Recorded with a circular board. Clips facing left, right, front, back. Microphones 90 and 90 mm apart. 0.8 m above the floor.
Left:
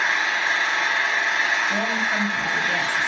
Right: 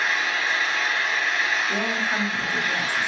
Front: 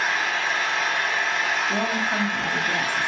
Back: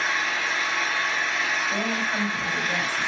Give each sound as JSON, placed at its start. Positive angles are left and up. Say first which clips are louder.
{"t": 0.0, "sound": "an engine running", "louder": "left 2 dB, front 2 dB", "azimuth_deg": 30, "distance_m": 1.9}
{"t": 1.7, "sound": "a woman speaking", "louder": "left 2 dB, front 2 dB", "azimuth_deg": -20, "distance_m": 2.5}